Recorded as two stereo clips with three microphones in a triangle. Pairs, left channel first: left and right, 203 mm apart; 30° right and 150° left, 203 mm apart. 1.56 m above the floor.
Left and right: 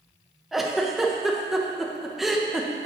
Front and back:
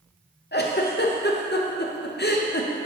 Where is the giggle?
Straight ahead, 0.6 m.